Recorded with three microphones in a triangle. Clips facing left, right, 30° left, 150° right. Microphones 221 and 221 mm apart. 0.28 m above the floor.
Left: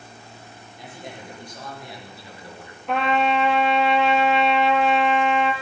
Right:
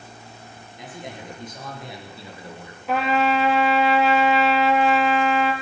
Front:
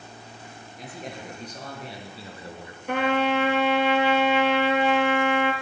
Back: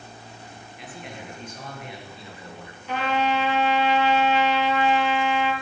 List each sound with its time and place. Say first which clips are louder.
0.8 s a man speaking: right 2 dB, front 2 dB; 20° right, 5.5 m; by 3.3 s 35° right, 3.5 m
2.9 s a trumpet: even, front 2 dB; 5° right, 1.7 m